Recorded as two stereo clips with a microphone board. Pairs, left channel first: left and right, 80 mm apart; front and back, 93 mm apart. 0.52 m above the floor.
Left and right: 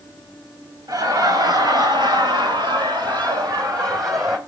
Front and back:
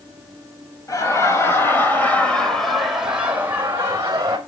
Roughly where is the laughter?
Ahead right.